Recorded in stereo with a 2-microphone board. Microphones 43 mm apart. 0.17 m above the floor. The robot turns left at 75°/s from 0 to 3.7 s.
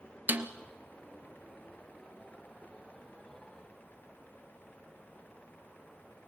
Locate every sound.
0.3 s a snare drum: 50° right (ahead or behind), 0.9 m; by 0.5 s 60° right (ahead or behind), 0.9 m